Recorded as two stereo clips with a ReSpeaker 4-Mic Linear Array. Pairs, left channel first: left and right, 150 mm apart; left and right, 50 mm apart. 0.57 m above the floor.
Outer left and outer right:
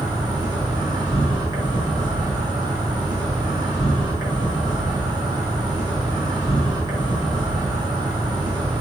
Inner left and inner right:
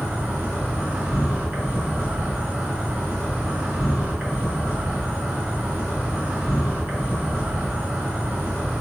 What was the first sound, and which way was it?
An insect, 30° right (ahead or behind).